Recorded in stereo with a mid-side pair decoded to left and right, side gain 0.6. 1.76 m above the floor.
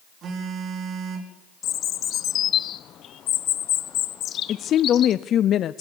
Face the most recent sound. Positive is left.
turn(degrees=50)